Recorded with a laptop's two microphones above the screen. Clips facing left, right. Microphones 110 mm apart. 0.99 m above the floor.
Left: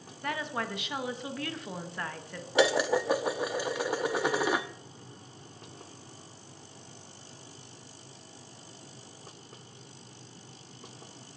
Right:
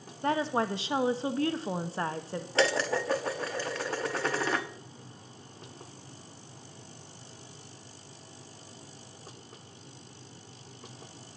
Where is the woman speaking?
25° right (ahead or behind), 0.8 m.